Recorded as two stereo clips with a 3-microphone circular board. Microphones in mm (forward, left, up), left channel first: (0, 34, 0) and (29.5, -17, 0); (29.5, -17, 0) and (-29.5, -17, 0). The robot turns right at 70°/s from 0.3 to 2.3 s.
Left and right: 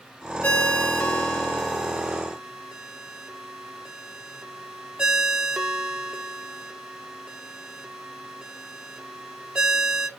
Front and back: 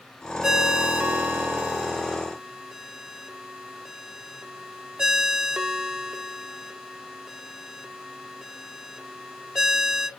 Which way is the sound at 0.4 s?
115° left.